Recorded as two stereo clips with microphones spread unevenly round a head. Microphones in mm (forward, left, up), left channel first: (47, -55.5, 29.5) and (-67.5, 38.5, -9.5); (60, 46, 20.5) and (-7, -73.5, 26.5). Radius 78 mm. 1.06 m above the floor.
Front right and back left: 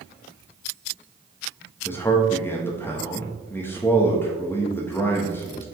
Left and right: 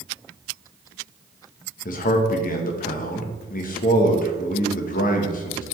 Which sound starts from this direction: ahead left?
A man speaking, at 1.9 s.